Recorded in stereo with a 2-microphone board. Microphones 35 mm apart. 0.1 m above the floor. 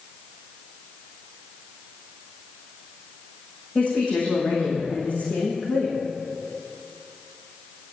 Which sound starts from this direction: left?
A woman speaking, at 3.8 s.